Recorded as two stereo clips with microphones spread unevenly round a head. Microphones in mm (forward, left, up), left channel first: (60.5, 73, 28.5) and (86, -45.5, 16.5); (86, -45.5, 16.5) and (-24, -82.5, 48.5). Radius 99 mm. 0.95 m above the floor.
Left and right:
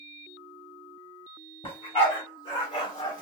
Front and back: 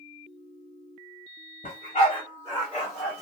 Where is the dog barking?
80° left, 1.2 m; by 3.2 s 150° left, 0.8 m.